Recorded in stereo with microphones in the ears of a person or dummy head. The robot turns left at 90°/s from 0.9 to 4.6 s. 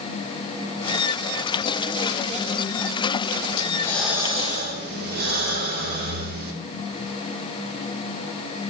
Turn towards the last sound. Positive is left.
turn(degrees=-60)